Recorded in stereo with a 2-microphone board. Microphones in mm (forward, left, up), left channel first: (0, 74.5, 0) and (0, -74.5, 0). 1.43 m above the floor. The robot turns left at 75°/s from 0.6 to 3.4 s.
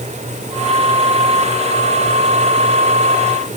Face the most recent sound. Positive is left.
No sound to turn to.